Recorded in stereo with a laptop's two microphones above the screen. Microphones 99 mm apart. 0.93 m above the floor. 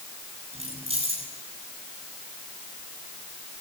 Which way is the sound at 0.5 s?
85° right.